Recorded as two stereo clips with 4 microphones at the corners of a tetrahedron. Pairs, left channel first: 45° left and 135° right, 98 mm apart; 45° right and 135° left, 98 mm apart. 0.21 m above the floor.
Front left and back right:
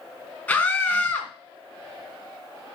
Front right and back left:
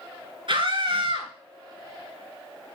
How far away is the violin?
No violin in this recording.